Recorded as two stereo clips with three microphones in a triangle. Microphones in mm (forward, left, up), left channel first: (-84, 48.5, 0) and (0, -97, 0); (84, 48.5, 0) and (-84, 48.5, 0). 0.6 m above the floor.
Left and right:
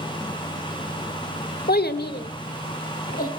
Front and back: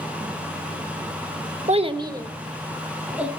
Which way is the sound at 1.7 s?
135° left.